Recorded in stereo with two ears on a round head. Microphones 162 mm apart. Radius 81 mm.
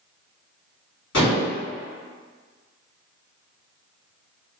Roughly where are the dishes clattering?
Left.